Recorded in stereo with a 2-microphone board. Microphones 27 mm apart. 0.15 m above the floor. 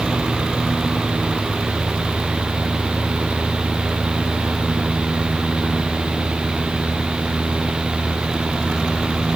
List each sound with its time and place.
Only background noise.